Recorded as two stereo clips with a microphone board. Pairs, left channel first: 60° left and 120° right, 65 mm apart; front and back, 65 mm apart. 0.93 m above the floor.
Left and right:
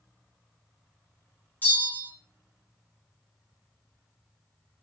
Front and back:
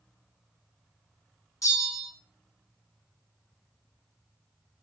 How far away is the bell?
About 1.5 m.